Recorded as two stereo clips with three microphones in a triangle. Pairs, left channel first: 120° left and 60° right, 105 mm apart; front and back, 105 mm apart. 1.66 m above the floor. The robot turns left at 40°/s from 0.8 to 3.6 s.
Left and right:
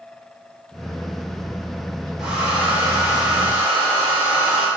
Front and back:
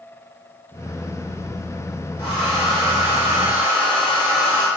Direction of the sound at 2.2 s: 30° left.